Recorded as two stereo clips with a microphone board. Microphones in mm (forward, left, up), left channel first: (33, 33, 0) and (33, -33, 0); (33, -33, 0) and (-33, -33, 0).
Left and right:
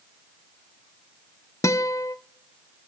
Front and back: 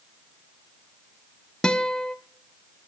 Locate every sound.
1.6 s a guitar: 75° left, 0.5 m